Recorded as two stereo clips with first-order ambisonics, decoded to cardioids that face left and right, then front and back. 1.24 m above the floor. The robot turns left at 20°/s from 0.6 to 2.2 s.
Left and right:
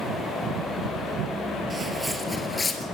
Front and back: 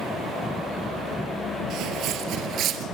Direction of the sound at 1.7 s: 160° right.